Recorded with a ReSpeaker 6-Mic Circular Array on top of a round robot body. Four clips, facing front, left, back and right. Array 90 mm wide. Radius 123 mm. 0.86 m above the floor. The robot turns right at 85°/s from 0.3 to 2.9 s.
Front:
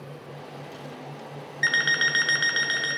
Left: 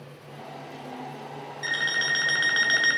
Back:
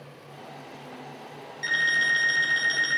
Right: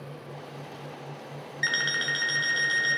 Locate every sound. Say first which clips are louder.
1.6 s an alarm clock: left 1 dB, front 1 dB; 30° right, 0.6 m; by 3.0 s 80° left, 0.6 m